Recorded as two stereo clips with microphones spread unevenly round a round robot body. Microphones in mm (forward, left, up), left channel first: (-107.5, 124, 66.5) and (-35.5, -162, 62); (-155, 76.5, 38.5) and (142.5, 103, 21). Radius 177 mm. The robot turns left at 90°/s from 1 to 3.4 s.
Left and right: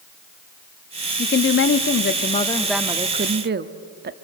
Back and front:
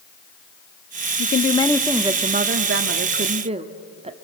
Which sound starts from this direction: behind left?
A woman speaking, at 1.2 s.